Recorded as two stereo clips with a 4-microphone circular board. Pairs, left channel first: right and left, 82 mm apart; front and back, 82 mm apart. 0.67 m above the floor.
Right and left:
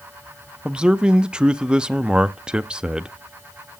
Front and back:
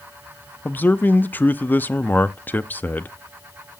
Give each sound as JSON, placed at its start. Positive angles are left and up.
{"t": 0.7, "sound": "a man speaking", "azimuth_deg": 30, "distance_m": 0.6}